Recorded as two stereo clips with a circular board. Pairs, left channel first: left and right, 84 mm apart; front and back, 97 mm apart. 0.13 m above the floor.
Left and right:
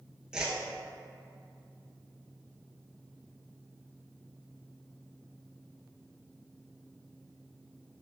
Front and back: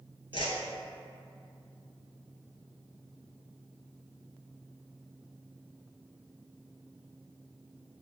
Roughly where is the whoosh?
Ahead.